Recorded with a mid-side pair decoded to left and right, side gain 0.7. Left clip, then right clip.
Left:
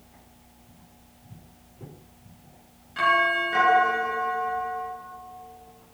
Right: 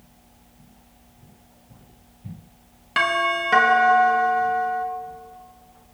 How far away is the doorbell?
About 3 m.